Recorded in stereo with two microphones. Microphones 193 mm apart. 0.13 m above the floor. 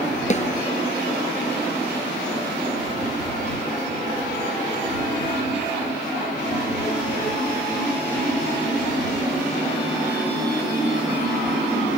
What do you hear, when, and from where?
0.3 s a snare drum: 40° left (ahead or behind)